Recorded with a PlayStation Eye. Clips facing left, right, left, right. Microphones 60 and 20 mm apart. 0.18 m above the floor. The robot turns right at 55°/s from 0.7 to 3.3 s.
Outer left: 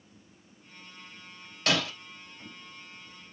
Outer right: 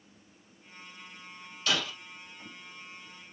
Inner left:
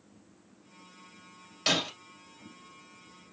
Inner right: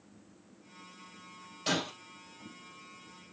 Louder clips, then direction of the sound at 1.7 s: Outer left 3 dB, inner left 4 dB; 65° left (ahead or behind).